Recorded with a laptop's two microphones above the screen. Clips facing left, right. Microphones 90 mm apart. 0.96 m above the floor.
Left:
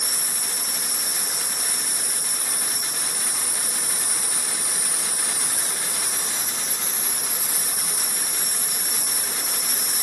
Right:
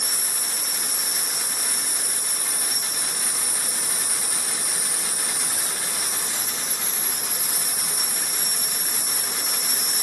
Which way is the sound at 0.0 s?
60° right (ahead or behind).